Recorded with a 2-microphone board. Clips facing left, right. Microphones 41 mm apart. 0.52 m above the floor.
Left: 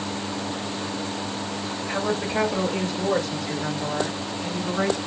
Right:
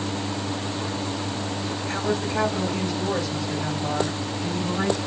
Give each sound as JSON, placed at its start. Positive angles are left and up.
{"t": 1.9, "sound": "a woman speaking", "side_deg": 15, "distance_m": 1.1}